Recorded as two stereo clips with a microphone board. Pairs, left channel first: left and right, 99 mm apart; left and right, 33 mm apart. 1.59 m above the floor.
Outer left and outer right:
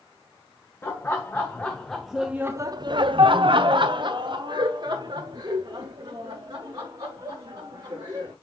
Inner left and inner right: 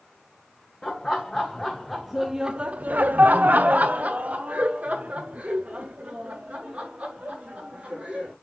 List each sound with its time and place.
0.8 s laughter: 25° left (ahead or behind), 1.3 m; by 8.3 s 45° right (ahead or behind), 4 m